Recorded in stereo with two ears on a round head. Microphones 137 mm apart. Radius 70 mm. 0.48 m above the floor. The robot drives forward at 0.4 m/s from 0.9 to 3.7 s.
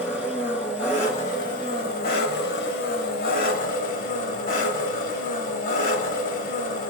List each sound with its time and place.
0.0 s an engine running: 45° left (ahead or behind), 1.1 m; by 6.9 s 65° left (ahead or behind), 0.8 m